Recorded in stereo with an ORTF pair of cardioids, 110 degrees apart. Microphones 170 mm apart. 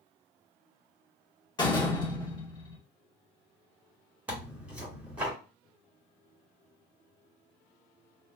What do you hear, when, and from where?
1.6 s a door slam: 25° left, 1.4 m
4.3 s tearing paper: 10° right, 1.7 m